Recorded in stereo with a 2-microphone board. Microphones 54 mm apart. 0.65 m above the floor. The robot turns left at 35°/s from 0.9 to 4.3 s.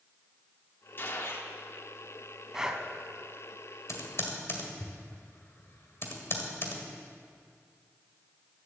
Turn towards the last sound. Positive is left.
turn(degrees=50)  # may be behind; listen again after turning